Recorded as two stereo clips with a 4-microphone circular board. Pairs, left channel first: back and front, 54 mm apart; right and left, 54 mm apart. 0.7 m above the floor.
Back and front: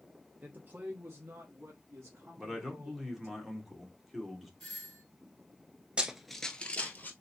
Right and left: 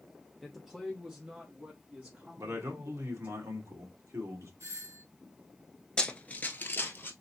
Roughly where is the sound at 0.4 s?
Ahead.